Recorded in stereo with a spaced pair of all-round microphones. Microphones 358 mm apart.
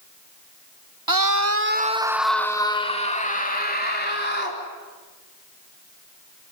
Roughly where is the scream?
Right.